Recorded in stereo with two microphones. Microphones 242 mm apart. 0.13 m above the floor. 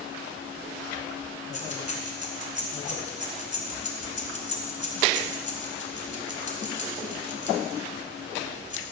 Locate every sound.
1.5 s keys jangling: 30° left (ahead or behind), 1.2 m